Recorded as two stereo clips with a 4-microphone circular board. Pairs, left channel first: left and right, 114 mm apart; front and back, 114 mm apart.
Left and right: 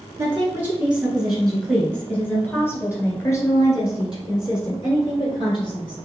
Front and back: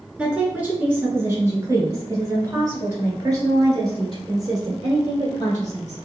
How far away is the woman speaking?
About 1.6 m.